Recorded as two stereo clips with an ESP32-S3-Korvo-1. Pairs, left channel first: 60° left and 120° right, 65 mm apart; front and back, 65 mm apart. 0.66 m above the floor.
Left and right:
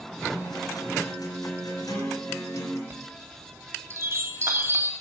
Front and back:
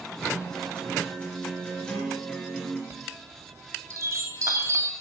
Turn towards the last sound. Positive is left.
turn(degrees=-155)